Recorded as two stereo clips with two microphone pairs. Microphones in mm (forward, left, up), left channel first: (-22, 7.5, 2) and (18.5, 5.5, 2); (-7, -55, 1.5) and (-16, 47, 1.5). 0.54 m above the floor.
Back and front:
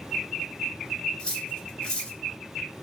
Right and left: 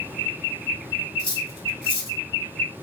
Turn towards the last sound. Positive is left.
turn(degrees=-115)